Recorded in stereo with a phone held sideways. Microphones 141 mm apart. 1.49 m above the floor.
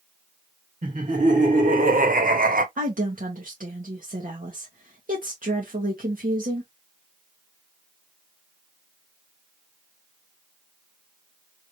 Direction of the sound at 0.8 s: 65° right (ahead or behind).